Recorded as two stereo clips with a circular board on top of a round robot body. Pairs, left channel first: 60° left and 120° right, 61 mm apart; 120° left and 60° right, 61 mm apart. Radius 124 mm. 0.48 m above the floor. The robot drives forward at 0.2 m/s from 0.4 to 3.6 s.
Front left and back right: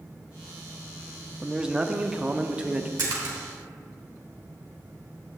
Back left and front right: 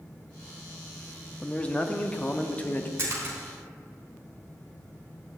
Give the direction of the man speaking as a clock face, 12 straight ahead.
6 o'clock.